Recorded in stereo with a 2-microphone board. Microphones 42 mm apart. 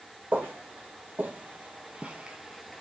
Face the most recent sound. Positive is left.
turn(degrees=5)  # may be behind; listen again after turning